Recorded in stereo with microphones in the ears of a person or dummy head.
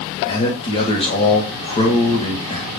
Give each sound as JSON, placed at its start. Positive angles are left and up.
{"t": 0.3, "sound": "a man speaking", "side_deg": 30, "distance_m": 2.5}